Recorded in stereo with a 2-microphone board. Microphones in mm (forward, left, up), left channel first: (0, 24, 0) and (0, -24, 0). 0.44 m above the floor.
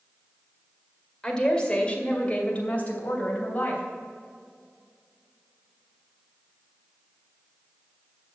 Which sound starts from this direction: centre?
A woman speaking, at 1.2 s.